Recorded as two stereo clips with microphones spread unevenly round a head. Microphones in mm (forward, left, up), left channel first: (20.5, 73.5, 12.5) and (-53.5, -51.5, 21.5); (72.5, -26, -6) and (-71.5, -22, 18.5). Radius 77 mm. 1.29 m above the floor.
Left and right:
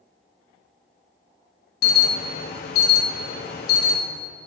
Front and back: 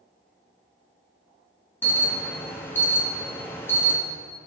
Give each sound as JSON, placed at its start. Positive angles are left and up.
{"t": 1.8, "sound": "an alarm", "azimuth_deg": 75, "distance_m": 2.5}